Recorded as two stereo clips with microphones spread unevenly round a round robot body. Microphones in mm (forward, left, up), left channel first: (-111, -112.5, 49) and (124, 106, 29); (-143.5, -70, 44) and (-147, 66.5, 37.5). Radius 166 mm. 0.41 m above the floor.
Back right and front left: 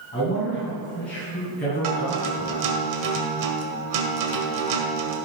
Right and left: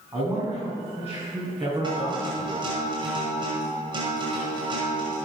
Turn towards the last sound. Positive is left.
turn(degrees=30)